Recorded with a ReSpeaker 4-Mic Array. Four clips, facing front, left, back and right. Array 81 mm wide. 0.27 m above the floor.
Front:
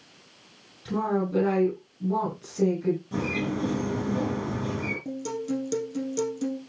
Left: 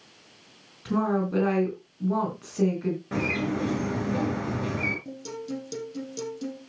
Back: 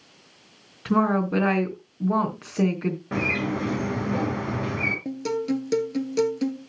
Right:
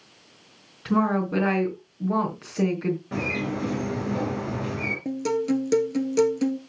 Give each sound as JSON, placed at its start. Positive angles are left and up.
{"t": 0.8, "sound": "a woman speaking", "azimuth_deg": -160, "distance_m": 3.5}
{"t": 3.1, "sound": "a bird", "azimuth_deg": 170, "distance_m": 5.0}
{"t": 5.0, "sound": "a guitar", "azimuth_deg": -120, "distance_m": 1.8}